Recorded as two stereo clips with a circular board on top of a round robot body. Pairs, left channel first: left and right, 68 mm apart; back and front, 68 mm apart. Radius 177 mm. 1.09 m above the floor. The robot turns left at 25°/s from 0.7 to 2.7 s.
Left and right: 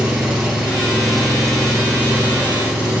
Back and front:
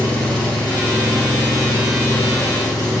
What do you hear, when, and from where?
0.0 s an engine running: 165° right, 3.5 m; by 3.0 s 145° left, 3.5 m